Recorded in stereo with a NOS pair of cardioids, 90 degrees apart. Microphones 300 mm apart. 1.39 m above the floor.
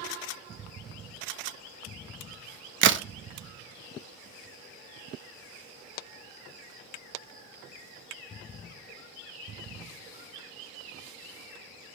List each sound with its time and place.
2.8 s a crack: 40° right, 0.6 m